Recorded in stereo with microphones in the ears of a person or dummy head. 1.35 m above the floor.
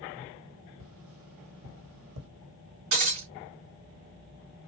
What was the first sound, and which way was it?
Tapping, 80° right.